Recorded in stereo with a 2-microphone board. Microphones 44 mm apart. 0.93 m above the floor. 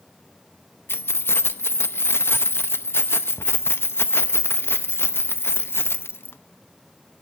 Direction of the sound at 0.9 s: 65° left (ahead or behind).